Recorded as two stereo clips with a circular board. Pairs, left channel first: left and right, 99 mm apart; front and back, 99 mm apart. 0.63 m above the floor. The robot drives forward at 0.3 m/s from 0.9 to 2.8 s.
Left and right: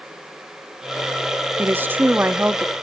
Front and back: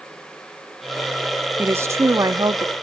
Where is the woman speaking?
135° right, 0.5 m; by 2.7 s 160° right, 0.7 m.